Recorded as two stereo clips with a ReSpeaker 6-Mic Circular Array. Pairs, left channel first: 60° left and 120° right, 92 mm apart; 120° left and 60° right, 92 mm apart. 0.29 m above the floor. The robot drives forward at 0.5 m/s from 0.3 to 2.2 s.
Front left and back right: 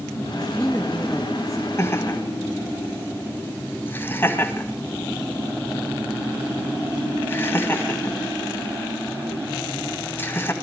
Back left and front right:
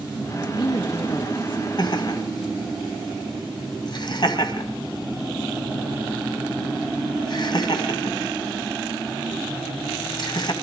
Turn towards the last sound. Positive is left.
turn(degrees=120)